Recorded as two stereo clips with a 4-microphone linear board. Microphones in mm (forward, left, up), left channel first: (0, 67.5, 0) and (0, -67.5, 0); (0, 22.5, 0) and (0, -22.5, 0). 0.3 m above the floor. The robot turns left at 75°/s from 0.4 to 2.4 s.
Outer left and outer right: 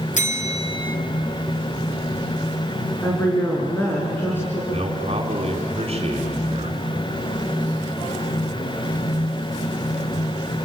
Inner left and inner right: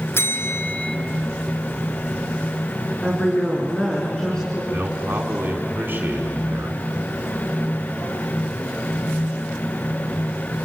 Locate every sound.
0.1 s a bell: 65° left, 1.9 m; by 1.0 s 25° left, 1.9 m
3.0 s a woman speaking: 15° left (ahead or behind), 4 m
4.7 s a man speaking: 45° right (ahead or behind), 3 m